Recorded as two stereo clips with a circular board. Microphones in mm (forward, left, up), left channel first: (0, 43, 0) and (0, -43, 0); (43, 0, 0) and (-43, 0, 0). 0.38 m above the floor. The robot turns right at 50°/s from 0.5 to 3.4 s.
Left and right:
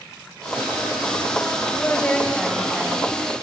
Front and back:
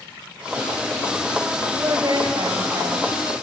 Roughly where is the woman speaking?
Behind left.